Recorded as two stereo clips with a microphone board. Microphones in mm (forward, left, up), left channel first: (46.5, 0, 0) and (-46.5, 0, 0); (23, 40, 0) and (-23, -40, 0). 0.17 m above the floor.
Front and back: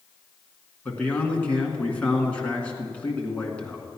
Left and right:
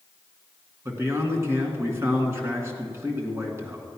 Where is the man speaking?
70° right, 2 m.